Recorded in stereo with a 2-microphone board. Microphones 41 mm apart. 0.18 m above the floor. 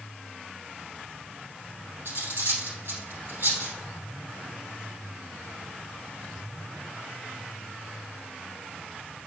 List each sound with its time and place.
2.0 s cutlery clinking: 65° right (ahead or behind), 3 m